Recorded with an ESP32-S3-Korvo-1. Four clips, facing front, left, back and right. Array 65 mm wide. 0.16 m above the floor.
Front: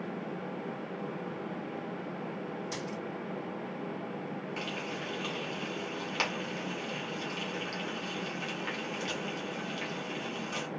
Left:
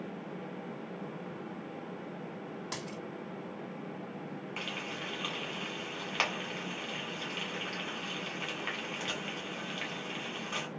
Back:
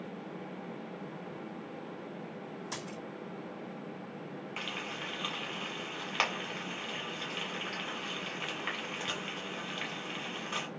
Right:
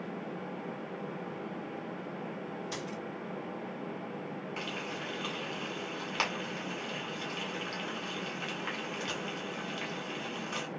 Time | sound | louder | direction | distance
2.7 | a dropped coin | right 2 dB, front 4 dB | 100° left | 1.6 m
4.6 | frying | even, even | 150° left | 1.7 m